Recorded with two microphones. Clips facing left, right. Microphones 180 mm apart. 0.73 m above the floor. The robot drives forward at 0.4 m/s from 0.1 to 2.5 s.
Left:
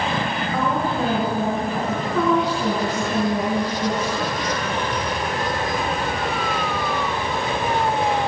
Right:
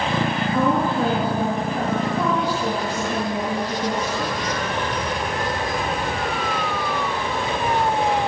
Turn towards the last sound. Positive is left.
turn(degrees=75)  # may be behind; listen again after turning